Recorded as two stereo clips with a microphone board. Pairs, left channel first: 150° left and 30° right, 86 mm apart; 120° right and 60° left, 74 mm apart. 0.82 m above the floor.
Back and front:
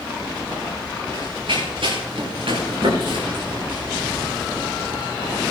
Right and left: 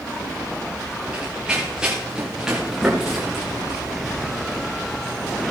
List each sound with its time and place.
1.1 s running footsteps: 15° right, 5 m; by 5.3 s 30° right, 8.5 m